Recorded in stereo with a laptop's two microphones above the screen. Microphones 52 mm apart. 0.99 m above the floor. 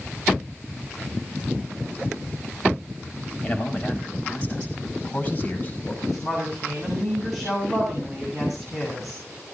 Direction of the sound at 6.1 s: 5° right (ahead or behind).